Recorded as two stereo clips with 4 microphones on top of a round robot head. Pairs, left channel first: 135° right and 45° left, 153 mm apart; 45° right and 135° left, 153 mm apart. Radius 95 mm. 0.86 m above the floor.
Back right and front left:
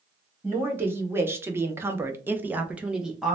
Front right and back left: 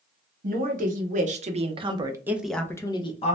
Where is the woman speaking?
120° left, 1.2 m; by 3.4 s 45° right, 0.7 m.